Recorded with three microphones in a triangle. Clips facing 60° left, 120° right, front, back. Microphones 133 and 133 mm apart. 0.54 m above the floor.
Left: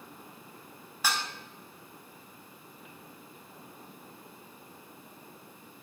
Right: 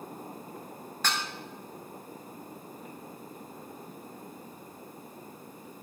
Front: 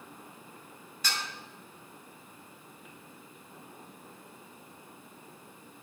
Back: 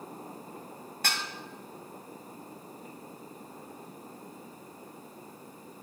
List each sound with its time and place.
1.0 s dishes clattering: 140° left, 2 m